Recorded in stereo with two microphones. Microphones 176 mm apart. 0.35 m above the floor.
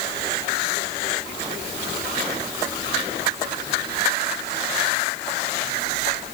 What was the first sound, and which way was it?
Only background noise.